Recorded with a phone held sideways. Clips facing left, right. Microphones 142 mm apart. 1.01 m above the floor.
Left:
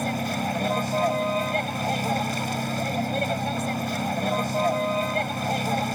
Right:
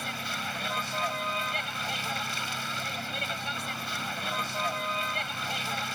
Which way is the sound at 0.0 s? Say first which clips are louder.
Left 11 dB; 45° left (ahead or behind).